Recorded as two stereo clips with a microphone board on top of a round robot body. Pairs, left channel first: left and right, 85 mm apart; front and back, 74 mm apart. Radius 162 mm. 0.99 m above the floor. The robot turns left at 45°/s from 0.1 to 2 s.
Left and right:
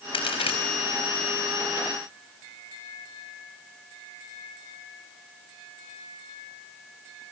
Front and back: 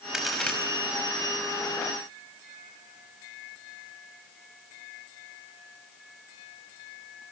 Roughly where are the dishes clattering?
I don't hear dishes clattering.